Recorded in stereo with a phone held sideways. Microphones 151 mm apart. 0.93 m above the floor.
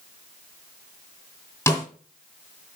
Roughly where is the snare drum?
Centre.